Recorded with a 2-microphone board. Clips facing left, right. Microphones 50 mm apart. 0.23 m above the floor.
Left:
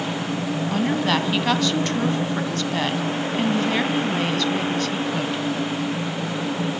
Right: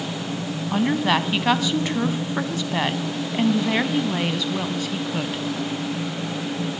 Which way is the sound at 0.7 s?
15° right (ahead or behind).